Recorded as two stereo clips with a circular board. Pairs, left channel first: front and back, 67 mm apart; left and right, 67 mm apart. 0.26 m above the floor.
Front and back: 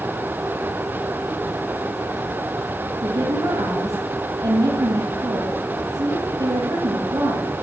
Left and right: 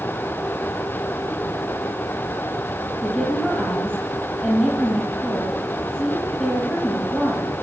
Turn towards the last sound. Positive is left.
turn(degrees=165)